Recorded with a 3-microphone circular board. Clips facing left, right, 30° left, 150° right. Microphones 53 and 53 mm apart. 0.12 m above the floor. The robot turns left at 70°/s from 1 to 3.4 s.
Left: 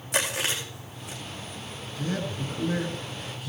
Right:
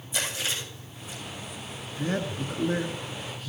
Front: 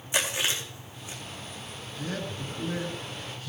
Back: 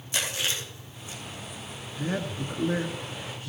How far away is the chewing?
About 4 m.